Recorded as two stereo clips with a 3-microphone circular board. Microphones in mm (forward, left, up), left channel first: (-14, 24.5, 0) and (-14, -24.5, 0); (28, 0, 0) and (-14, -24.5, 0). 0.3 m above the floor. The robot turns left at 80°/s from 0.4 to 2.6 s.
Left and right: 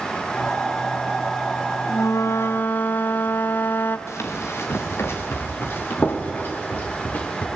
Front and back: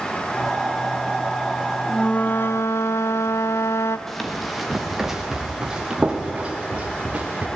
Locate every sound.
1.9 s a flute: 105° left, 0.6 m; by 4.0 s 45° left, 0.6 m
4.1 s running footsteps: 115° left, 3 m; by 7.5 s 150° left, 4 m